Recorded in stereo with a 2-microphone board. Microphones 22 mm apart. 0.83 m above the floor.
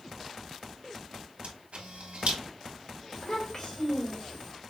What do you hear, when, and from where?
1.4 s a camera shutter: 80° right, 2 m
3.1 s a child speaking: 20° left (ahead or behind), 2.5 m